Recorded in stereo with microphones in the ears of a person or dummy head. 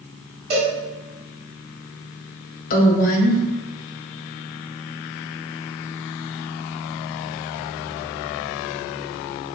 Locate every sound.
0.5 s a cowbell: 35° right (ahead or behind), 1.8 m
2.7 s a woman speaking: 50° left (ahead or behind), 0.7 m